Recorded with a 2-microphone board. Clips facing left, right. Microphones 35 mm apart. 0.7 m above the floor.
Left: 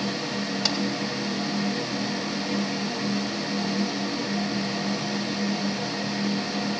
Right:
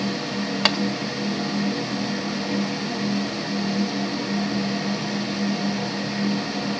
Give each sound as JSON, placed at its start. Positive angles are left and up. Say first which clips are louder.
{"t": 0.7, "sound": "tapping", "louder": "right 8 dB", "side_deg": -50, "distance_m": 1.4}